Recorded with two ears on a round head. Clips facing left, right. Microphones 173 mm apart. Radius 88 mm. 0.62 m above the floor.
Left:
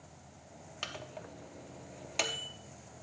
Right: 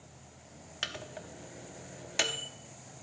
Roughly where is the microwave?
Centre.